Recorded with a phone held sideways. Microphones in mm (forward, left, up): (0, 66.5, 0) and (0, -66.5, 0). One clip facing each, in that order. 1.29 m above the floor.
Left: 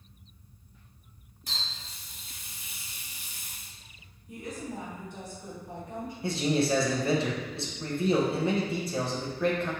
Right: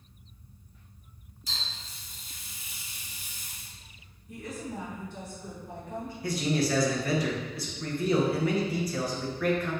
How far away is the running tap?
About 0.7 m.